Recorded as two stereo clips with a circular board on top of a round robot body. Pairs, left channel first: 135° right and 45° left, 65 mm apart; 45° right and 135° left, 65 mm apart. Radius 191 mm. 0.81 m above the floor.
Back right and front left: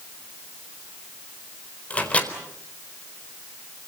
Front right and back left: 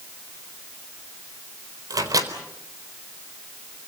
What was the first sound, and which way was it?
A microwave, 155° left.